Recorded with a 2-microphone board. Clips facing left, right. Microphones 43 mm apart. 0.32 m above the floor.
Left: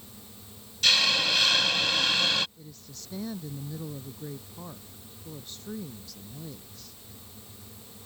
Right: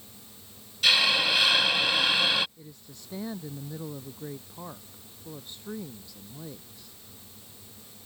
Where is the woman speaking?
15° right (ahead or behind).